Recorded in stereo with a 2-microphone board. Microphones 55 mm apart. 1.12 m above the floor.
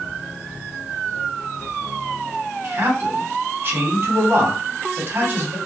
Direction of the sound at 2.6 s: 40° right (ahead or behind).